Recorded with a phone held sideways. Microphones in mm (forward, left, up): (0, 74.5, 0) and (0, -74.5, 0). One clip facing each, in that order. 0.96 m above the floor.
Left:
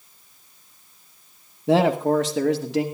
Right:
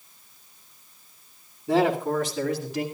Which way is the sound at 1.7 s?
70° left (ahead or behind).